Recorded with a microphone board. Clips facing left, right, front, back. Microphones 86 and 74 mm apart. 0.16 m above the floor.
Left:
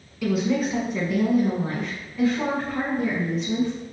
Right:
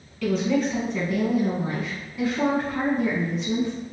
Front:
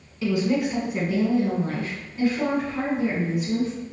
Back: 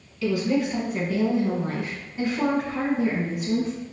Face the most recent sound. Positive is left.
turn(degrees=-150)